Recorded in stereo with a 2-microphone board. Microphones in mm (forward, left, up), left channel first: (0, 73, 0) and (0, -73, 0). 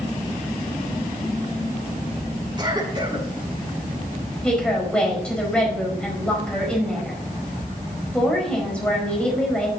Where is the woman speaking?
5° left (ahead or behind), 4.5 m.